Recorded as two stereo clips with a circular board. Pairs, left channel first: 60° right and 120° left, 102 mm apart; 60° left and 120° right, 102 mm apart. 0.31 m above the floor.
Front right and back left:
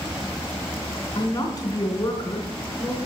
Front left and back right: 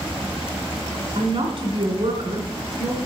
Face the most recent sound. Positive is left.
turn(degrees=-105)